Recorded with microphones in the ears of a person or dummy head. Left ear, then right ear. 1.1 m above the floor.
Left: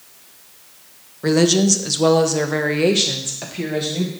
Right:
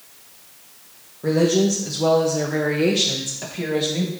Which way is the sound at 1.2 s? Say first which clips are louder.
Left 2 dB; 60° left (ahead or behind).